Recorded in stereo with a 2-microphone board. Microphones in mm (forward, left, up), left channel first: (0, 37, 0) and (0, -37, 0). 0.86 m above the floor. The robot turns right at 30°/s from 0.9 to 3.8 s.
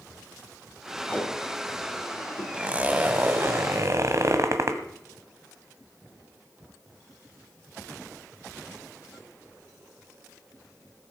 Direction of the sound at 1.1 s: 20° left (ahead or behind).